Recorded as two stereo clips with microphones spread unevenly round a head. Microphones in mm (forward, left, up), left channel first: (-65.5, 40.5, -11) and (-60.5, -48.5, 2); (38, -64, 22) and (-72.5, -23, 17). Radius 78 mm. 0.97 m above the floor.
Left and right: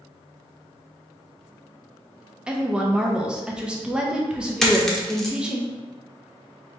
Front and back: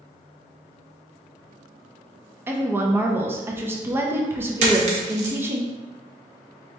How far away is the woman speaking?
About 0.6 m.